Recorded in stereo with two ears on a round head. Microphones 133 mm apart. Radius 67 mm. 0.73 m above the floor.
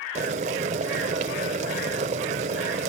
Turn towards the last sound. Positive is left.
turn(degrees=-50)  # may be behind; listen again after turning